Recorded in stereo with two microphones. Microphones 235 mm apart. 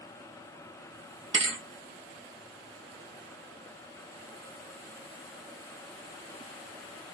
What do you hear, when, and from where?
1.3 s a thud: 55° right (ahead or behind), 0.6 m